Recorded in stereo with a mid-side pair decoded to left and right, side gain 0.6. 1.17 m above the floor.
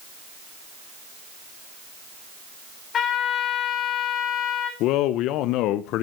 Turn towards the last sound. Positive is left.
turn(degrees=70)